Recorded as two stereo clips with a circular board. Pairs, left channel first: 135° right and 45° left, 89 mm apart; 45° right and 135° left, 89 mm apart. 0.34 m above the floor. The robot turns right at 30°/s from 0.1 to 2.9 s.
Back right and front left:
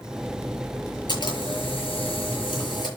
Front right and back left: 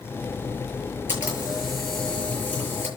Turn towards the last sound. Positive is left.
turn(degrees=-105)